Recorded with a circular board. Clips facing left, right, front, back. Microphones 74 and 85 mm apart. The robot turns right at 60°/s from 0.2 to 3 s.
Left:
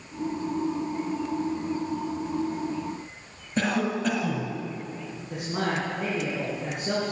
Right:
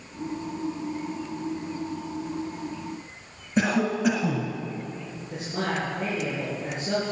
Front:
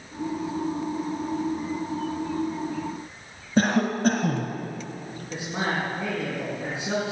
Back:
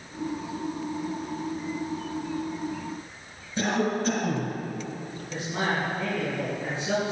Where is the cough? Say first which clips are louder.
Right 2 dB, front 3 dB; 10° right, 2 m.